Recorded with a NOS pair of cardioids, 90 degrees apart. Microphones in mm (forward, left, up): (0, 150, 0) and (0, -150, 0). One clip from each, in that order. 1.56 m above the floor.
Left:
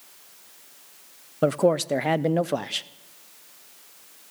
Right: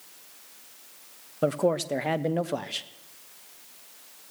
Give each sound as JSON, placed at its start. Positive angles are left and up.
{"t": 1.4, "sound": "a man speaking", "azimuth_deg": 20, "distance_m": 0.6}